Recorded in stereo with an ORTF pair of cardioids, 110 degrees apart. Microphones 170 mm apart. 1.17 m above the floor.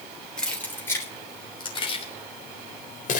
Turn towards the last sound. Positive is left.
turn(degrees=55)